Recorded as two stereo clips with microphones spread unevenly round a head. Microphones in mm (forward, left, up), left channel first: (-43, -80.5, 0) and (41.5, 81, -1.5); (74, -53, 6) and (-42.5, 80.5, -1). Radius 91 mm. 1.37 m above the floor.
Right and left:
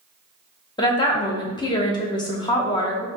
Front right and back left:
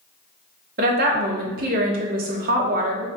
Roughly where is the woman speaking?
Behind.